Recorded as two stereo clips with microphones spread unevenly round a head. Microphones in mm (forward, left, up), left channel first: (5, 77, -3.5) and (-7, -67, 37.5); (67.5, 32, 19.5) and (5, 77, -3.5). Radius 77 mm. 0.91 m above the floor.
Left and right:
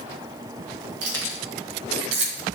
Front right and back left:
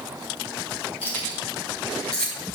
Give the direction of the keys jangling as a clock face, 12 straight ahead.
3 o'clock.